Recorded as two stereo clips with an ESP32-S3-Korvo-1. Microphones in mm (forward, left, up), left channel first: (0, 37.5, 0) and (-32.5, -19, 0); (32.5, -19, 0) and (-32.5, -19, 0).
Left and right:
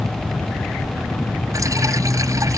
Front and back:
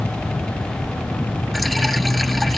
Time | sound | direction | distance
1.5 | dripping | 90° right | ?